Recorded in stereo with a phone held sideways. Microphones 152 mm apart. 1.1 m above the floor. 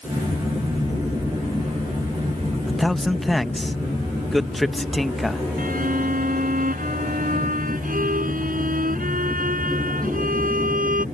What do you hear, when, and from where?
2.7 s a man speaking: centre (ahead or behind)
5.6 s a violin: 65° right (ahead or behind)